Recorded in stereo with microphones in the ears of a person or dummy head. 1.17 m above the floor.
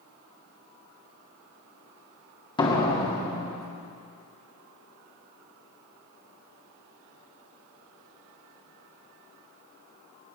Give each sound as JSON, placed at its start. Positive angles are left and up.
{"t": 2.6, "sound": "a door slam", "side_deg": 25, "distance_m": 1.8}